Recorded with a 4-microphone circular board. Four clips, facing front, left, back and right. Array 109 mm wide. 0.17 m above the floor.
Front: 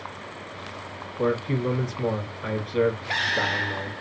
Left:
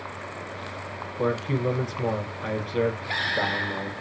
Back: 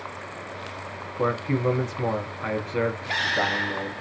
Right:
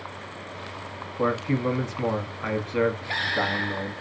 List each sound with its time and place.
1.2 s a man speaking: 130° right, 1.1 m